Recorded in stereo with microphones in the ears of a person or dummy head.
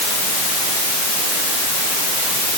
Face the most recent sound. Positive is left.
No sound to turn to.